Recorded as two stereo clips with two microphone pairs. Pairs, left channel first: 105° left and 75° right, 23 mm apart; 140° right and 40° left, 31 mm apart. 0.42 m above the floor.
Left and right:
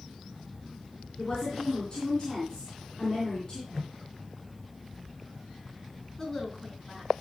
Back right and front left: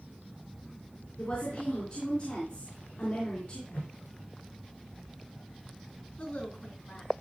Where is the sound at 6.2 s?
Straight behind, 4.5 m.